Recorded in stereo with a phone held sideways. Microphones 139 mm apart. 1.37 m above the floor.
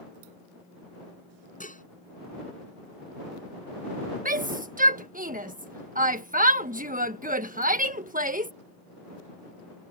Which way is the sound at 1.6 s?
75° left (ahead or behind).